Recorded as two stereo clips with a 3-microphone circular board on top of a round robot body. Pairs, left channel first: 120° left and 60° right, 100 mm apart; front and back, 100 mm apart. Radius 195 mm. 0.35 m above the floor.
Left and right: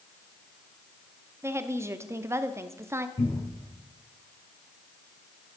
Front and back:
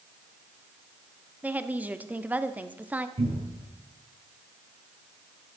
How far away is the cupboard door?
About 4.5 m.